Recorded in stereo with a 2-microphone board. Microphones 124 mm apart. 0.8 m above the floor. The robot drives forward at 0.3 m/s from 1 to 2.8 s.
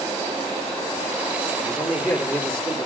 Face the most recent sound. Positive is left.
turn(degrees=5)  # may be behind; listen again after turning